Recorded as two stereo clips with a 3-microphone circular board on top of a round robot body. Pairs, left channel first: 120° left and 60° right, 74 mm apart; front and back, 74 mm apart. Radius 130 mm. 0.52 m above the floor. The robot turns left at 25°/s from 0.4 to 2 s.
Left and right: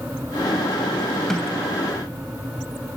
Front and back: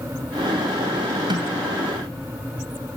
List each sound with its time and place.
1.3 s a snare drum: 155° right, 1.8 m; by 1.6 s 165° right, 1.8 m